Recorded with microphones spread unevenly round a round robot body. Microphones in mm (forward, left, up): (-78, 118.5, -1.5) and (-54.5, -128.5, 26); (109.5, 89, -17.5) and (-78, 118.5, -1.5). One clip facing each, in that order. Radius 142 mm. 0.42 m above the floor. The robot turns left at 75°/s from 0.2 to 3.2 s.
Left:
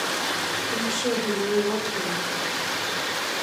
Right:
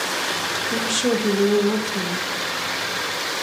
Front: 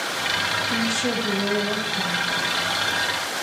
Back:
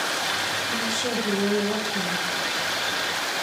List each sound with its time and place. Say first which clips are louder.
0.7 s a woman speaking: right 5 dB, front 4 dB; 40° right, 1.4 m; by 2.3 s 160° right, 1.4 m